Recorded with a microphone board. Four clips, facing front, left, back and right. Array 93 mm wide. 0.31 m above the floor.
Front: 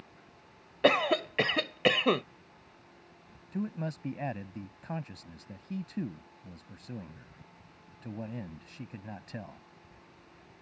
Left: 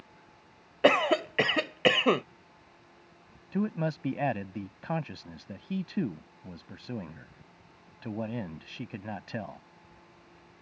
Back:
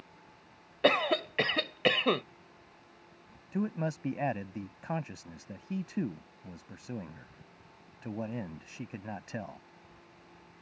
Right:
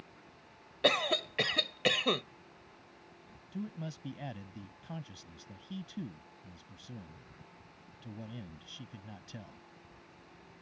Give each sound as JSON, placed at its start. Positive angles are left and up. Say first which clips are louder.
{"t": 0.8, "sound": "a cough", "louder": "left 7 dB, front 1 dB", "azimuth_deg": 75}
{"t": 3.5, "sound": "a man speaking", "louder": "left 11 dB, back 3 dB", "azimuth_deg": 110}